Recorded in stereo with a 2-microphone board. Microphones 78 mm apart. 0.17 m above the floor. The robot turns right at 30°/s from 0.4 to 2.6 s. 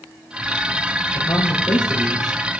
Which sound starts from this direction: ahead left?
A man speaking, at 1.1 s.